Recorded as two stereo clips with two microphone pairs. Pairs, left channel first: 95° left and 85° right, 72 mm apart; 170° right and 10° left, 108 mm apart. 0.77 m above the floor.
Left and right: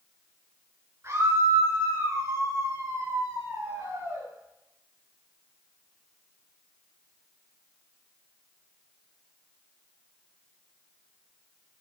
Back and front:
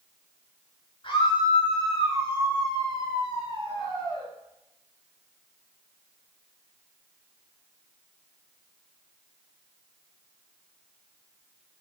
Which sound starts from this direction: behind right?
A scream, at 1.0 s.